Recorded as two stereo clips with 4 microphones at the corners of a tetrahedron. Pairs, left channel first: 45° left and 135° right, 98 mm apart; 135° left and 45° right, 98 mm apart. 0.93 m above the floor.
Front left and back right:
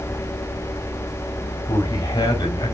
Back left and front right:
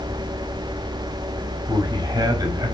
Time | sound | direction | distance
1.7 | a man speaking | straight ahead | 5 m